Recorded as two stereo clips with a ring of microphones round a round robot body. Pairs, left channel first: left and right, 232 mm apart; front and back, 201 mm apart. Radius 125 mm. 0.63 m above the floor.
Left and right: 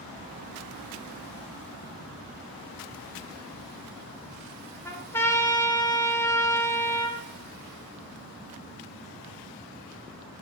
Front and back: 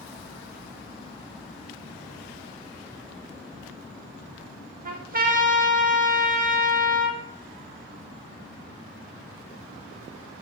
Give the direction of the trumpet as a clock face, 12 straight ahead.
7 o'clock.